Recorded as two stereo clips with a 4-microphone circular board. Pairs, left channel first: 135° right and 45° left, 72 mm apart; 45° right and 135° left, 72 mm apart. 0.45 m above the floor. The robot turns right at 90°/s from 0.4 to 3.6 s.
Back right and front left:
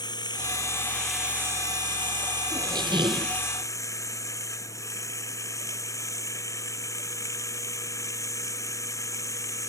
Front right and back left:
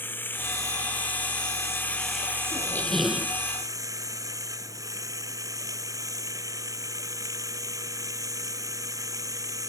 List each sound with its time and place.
0.0 s running water: 110° right; by 9.7 s straight behind
2.5 s a squeak: straight ahead; by 3.4 s 75° left